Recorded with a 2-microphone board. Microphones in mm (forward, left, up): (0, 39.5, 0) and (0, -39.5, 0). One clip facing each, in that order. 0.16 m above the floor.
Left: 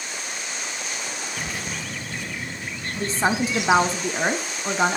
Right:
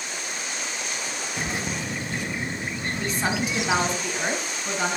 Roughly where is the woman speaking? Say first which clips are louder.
Left 5 dB; left.